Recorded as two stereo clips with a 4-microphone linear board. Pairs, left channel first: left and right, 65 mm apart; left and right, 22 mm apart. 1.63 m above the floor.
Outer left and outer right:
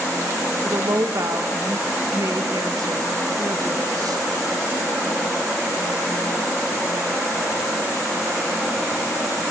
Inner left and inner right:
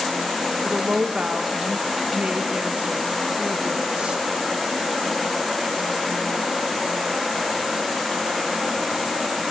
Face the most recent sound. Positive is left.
turn(degrees=-70)  # may be behind; listen again after turning